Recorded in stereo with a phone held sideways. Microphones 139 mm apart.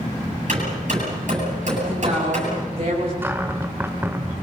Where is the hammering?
60° right (ahead or behind), 9 m.